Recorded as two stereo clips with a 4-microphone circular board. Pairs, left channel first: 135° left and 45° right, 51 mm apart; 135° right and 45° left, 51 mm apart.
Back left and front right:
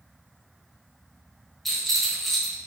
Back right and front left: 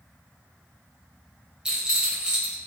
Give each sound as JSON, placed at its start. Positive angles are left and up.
{"t": 1.6, "sound": "a rattle", "azimuth_deg": 50, "distance_m": 1.3}